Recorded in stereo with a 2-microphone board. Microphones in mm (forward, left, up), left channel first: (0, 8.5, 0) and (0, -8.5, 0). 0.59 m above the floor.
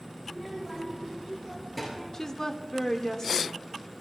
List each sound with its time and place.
0.2 s a child speaking: 10° right (ahead or behind), 5 m; by 2.0 s 10° left (ahead or behind), 6.5 m
2.1 s a woman speaking: 35° left (ahead or behind), 1.6 m